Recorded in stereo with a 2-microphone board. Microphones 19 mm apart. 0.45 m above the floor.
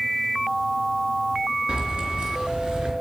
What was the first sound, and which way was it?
Keys jangling, 65° right (ahead or behind).